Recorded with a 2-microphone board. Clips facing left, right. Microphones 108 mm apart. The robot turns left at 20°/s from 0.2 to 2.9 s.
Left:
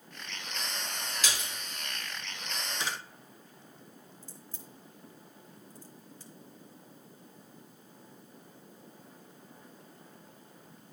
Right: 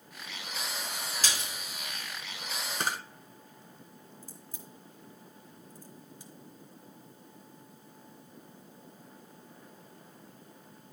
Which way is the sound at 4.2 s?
15° right (ahead or behind).